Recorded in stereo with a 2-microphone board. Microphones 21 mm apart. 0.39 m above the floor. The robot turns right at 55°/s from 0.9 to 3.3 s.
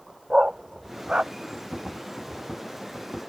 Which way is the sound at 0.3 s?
50° right (ahead or behind).